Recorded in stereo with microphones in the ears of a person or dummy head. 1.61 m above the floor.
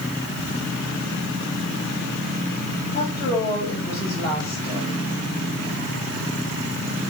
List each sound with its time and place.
2.9 s a woman speaking: 25° left (ahead or behind), 3.5 m